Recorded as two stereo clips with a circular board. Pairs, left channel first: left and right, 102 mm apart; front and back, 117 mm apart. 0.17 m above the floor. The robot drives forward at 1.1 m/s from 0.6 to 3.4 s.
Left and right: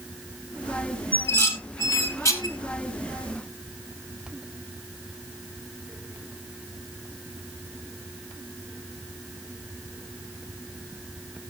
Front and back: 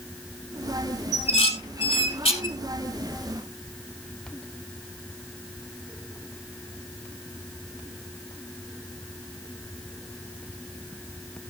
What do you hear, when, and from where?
1.1 s dishes clattering: 20° left, 4 m; by 2.6 s 35° left, 3 m